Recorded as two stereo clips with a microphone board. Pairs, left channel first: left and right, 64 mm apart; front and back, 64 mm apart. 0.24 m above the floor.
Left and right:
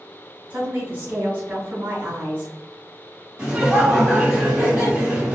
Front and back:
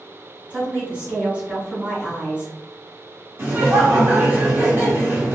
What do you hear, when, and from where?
0.5 s a woman speaking: 130° right, 1.4 m
3.4 s laughter: 155° right, 1.3 m